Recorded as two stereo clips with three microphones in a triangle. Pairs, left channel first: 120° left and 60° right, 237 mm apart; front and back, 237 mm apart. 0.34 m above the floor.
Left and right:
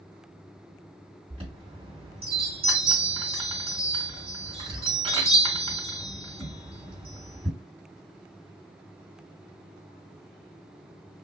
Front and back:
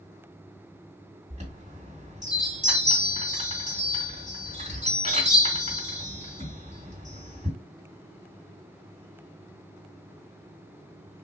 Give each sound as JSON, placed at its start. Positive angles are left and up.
{"t": 1.3, "sound": "a chime", "azimuth_deg": -125, "distance_m": 3.0}